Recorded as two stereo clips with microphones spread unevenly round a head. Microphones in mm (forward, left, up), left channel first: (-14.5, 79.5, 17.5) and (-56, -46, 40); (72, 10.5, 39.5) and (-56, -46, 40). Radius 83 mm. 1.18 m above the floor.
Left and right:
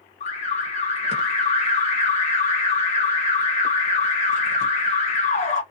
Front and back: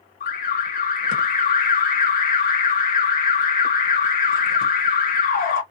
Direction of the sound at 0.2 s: 40° left.